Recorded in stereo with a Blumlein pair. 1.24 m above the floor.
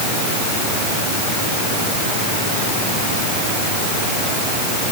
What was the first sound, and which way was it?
Only background noise.